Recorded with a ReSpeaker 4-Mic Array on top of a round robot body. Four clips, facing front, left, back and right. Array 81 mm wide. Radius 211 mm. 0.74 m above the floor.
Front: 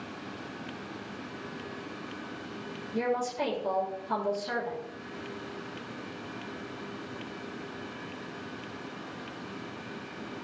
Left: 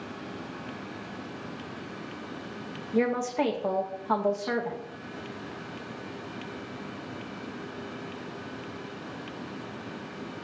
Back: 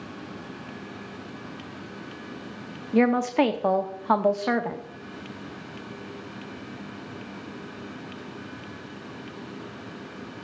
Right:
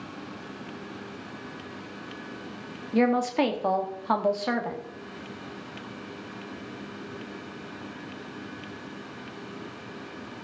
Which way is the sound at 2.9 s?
160° right.